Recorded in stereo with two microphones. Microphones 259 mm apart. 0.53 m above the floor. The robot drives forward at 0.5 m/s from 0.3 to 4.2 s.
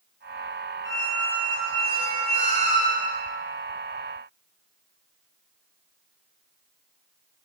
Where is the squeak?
20° right (ahead or behind), 2.5 m; by 3.2 s 35° right (ahead or behind), 1.3 m.